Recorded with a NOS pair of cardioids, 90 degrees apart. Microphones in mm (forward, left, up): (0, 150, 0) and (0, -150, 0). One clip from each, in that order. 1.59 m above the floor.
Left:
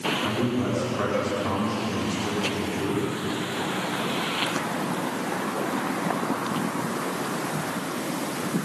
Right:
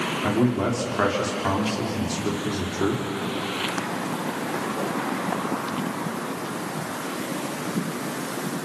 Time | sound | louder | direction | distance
0.2 | a man speaking | right 3 dB | 50° right | 5.5 m